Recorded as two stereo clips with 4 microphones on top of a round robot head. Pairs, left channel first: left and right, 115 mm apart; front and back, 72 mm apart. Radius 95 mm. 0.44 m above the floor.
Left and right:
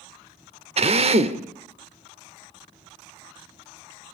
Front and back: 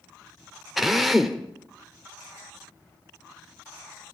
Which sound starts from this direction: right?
A drill, at 0.8 s.